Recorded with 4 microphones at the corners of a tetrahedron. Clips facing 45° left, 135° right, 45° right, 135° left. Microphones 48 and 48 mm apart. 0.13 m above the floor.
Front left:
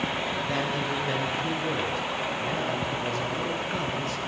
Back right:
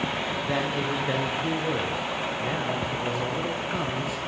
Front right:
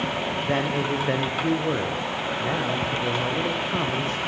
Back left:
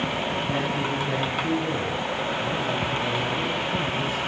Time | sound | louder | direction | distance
0.4 | a man speaking | back right 1 dB, front right 2 dB | 60° right | 7 m